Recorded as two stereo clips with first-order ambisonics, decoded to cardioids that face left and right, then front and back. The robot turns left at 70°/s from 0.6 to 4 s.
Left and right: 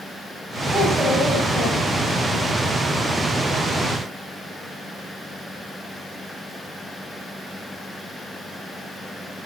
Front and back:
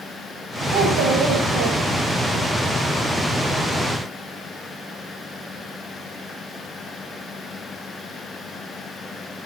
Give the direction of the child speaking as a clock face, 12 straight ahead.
5 o'clock.